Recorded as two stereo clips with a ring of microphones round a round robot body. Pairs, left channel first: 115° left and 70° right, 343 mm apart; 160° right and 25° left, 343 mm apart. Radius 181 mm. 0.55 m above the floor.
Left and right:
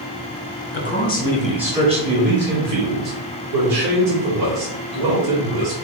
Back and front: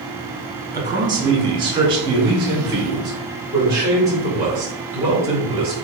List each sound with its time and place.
0.7 s a man speaking: 90° left, 1.3 m; by 5.7 s 60° right, 3.5 m